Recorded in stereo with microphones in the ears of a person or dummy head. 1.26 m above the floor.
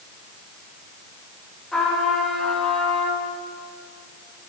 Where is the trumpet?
5° left (ahead or behind), 2 m.